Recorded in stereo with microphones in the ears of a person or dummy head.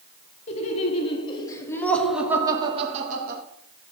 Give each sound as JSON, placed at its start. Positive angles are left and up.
{"t": 0.5, "sound": "laughter", "side_deg": 40, "distance_m": 3.0}